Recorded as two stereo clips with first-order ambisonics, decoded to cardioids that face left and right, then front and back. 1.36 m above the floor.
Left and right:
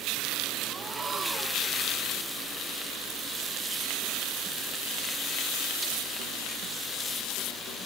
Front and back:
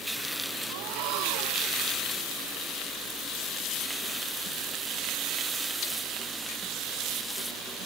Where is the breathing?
160° right.